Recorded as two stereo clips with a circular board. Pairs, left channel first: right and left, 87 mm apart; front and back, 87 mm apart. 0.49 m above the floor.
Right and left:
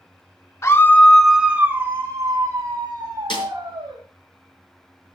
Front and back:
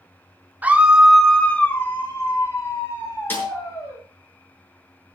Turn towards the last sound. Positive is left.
turn(degrees=-70)